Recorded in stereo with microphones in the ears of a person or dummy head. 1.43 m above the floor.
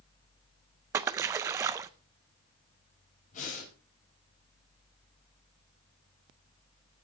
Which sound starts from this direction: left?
Breathing, at 3.3 s.